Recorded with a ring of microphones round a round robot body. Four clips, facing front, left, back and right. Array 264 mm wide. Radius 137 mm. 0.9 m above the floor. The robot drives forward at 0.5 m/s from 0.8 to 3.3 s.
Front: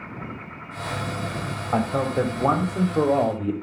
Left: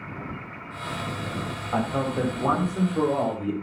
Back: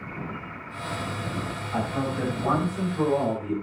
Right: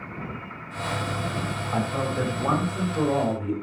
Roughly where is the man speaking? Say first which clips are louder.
Left 2 dB, front 6 dB; ahead.